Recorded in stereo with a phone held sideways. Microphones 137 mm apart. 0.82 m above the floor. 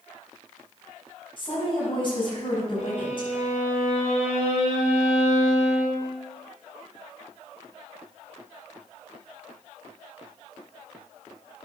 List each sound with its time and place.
1.4 s a woman speaking: 40° left (ahead or behind), 5.5 m
2.8 s a violin: 65° left (ahead or behind), 2.5 m